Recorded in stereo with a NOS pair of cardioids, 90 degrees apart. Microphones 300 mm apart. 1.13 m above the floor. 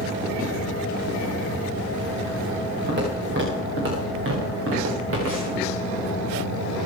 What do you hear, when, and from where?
2.9 s footsteps: 35° right, 7.5 m; by 5.6 s 50° right, 8 m